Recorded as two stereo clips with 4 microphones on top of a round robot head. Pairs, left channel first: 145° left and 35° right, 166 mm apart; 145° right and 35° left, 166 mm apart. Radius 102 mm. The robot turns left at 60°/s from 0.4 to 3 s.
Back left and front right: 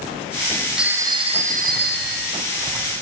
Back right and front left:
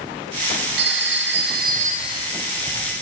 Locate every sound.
0.8 s a phone ringing: 50° left, 2 m; by 2.3 s 40° right, 2 m